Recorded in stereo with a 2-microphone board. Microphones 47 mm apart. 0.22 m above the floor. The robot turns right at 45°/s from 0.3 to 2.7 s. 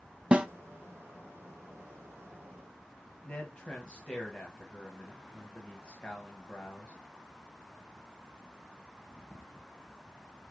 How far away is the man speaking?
About 1.0 m.